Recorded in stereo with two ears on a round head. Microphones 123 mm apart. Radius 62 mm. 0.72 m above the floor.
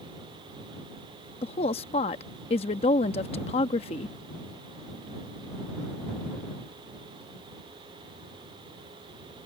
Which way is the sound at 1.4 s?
45° left (ahead or behind).